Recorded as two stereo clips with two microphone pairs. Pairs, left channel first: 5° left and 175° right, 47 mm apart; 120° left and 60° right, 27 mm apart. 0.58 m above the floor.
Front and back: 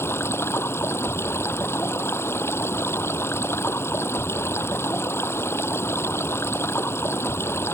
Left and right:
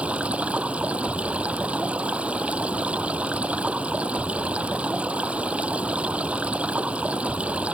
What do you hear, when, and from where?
0.0 s running water: 20° right